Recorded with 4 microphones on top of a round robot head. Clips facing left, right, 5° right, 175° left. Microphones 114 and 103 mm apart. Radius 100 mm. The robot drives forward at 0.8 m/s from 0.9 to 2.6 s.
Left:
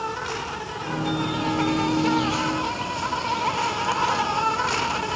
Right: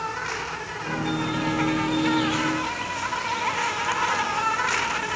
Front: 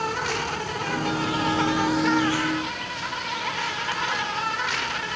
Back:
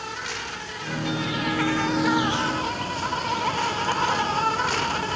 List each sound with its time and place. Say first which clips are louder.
0.0 s an insect: left 1 dB, front 7 dB; 20° left, 1.1 m; by 5.2 s 145° left, 0.8 m